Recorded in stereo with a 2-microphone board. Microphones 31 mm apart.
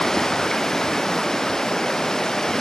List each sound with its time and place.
0.0 s running water: 15° left (ahead or behind)